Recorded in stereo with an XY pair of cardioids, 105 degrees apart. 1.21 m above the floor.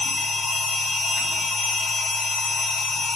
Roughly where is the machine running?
Ahead left.